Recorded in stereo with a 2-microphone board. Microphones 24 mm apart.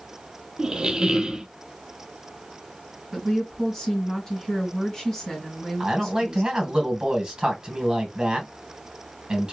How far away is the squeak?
About 0.7 m.